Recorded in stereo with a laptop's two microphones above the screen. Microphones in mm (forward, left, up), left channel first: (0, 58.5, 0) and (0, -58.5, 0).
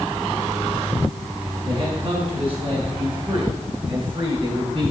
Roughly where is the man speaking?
Right.